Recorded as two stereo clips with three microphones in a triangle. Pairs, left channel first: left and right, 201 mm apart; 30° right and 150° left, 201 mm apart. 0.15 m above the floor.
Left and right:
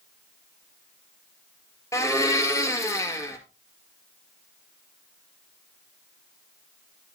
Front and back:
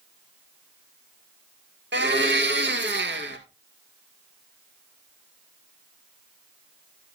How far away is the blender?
About 1.7 m.